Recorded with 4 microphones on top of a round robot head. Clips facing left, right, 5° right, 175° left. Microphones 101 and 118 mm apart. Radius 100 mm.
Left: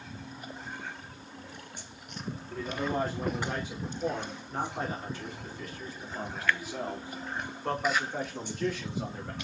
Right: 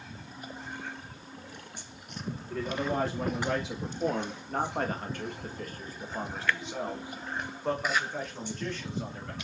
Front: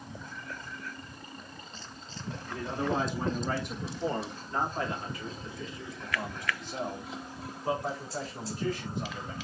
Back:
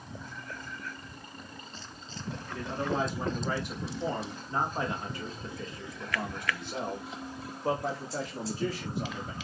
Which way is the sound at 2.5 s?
85° right.